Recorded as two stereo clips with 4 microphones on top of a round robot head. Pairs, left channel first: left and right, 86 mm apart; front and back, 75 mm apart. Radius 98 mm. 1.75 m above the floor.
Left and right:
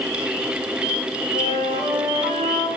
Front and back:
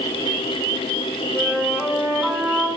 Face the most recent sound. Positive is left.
turn(degrees=120)